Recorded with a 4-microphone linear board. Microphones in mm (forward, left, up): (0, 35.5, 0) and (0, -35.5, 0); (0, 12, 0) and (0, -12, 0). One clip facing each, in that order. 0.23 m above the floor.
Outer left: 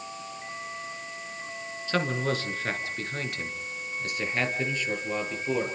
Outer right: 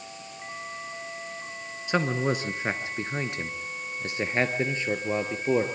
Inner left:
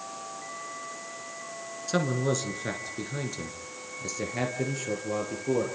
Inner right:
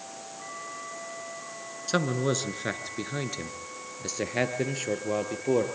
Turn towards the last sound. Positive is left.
turn(degrees=-30)  # may be behind; listen again after turning